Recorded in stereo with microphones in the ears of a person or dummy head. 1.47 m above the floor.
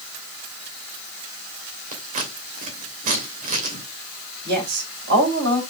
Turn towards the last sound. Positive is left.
turn(degrees=-60)  # may be behind; listen again after turning